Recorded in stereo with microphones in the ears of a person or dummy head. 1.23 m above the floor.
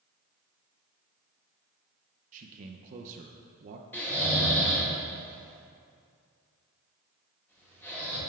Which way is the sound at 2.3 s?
45° right (ahead or behind).